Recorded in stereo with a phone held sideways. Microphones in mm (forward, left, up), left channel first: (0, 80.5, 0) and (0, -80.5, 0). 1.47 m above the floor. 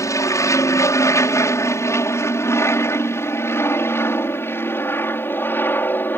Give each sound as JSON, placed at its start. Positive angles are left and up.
{"t": 0.0, "sound": "an aircraft", "side_deg": 20}